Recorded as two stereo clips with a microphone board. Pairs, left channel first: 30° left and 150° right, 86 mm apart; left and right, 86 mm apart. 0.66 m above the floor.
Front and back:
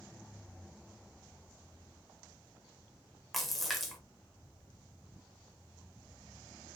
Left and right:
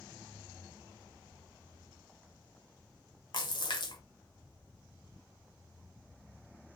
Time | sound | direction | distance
3.3 | a splash | 120° left | 1.2 m